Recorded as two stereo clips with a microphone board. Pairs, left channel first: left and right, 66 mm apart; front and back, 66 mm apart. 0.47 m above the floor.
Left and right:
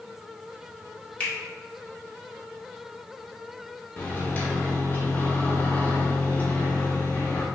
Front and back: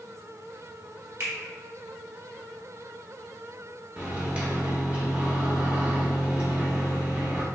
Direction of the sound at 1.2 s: 145° left.